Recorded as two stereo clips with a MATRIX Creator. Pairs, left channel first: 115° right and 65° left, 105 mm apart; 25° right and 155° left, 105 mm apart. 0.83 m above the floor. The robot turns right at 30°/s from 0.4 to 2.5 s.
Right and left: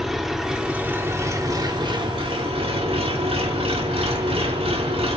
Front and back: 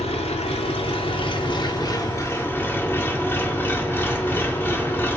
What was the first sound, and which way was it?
An engine running, 20° right.